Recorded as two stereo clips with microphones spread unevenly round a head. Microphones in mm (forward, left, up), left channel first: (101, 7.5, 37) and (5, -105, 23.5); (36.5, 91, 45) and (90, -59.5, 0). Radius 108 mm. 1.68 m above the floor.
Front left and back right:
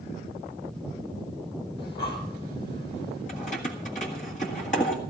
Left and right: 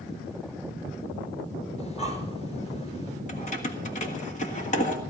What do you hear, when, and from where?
1.8 s breathing: 60° left, 4 m
3.3 s keys jangling: 95° left, 1.6 m